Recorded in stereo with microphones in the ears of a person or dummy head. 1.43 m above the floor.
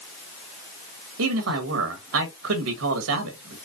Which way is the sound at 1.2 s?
75° right (ahead or behind).